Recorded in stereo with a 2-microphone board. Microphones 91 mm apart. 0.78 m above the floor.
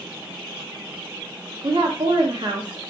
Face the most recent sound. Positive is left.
turn(degrees=-50)  # may be behind; listen again after turning